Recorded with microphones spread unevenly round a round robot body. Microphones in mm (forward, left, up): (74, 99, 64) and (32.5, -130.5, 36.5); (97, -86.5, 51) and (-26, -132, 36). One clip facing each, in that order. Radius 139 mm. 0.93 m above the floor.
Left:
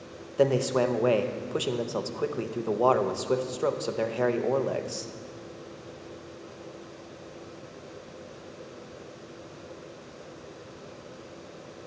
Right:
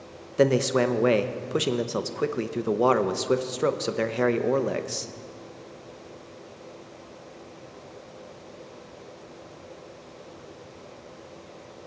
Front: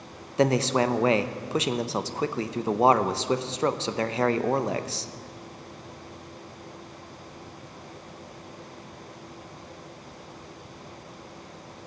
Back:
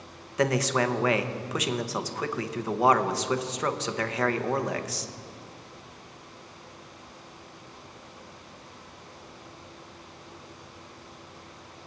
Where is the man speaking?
45° right, 0.7 m.